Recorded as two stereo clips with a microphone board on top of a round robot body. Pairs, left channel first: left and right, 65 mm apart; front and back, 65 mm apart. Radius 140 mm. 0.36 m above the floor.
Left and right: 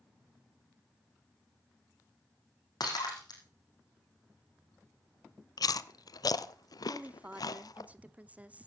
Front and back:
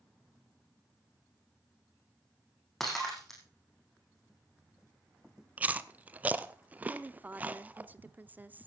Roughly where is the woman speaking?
Behind right.